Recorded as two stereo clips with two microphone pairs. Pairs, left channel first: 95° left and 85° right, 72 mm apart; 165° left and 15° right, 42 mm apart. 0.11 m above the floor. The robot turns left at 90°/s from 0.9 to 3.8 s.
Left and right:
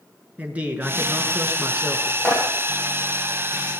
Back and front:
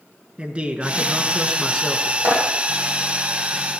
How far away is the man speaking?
About 1.9 m.